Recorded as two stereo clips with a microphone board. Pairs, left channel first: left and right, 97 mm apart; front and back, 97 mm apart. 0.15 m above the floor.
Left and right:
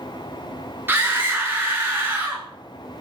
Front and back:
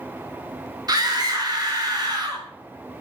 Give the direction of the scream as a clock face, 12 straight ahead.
5 o'clock.